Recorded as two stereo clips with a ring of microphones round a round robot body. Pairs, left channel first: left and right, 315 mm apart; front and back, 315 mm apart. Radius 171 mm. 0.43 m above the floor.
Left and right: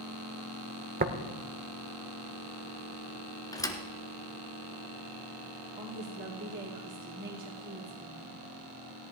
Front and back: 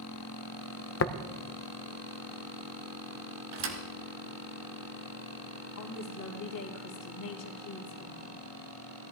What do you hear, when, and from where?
1.0 s tapping: 35° right, 0.8 m
3.5 s a thud: 170° left, 1.6 m
5.8 s a woman speaking: 30° right, 2.5 m